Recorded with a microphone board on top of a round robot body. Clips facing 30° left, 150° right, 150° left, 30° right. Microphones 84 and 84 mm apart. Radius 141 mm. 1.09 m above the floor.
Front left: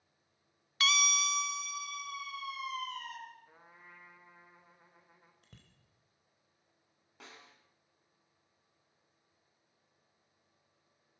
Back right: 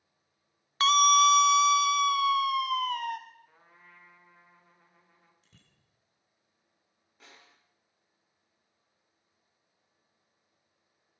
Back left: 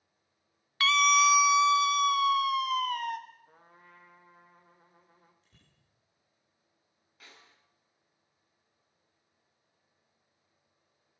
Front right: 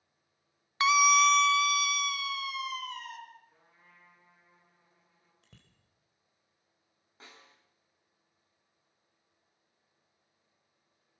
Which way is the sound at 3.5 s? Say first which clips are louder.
Front left 1 dB, back left 6 dB; 105° left.